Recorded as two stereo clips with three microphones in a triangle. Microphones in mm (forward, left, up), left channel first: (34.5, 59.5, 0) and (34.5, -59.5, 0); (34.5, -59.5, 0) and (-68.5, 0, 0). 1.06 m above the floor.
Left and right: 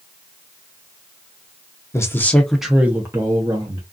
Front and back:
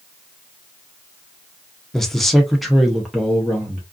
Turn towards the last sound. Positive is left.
turn(degrees=-125)